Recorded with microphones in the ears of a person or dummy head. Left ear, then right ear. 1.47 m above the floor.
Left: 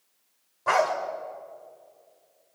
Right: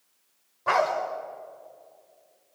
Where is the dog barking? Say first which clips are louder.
Even; 5° left (ahead or behind), 2 m.